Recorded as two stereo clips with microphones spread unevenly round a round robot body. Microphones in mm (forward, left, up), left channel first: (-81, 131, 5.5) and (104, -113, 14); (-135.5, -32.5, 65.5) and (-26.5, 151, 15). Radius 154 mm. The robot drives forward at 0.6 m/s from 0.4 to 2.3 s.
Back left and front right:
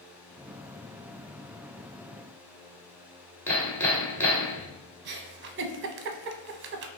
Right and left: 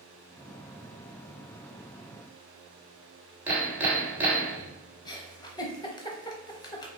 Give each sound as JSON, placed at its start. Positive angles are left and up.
{"t": 3.5, "sound": "hammering", "azimuth_deg": 60, "distance_m": 1.0}
{"t": 5.0, "sound": "a giggle", "azimuth_deg": -40, "distance_m": 0.5}